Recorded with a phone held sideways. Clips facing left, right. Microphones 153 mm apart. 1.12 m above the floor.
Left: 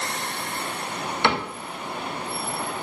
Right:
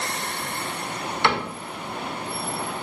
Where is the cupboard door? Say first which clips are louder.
Even; 25° left (ahead or behind), 0.6 m.